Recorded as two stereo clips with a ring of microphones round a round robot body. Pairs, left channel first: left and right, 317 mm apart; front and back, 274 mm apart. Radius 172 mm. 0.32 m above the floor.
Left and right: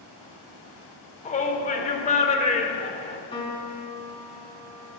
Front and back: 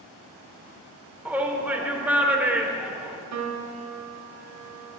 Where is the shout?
105° left, 0.9 m.